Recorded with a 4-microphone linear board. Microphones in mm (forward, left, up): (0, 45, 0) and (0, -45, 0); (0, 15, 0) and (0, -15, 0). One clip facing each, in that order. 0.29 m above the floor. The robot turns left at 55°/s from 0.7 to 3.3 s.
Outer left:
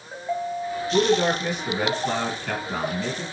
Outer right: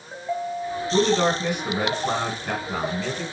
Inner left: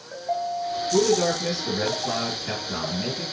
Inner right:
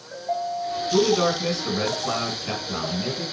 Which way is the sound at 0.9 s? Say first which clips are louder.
Even, inner right 1 dB; 65° right.